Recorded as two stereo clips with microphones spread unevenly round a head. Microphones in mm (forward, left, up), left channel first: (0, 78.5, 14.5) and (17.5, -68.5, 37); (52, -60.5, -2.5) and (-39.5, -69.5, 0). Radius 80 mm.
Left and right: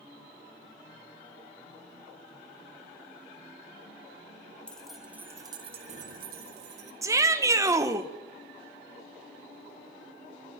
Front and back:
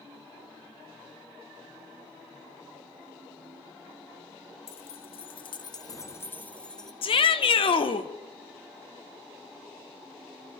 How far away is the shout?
About 1.6 m.